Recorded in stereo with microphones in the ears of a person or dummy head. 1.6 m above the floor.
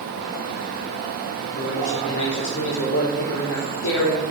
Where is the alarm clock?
I don't hear an alarm clock.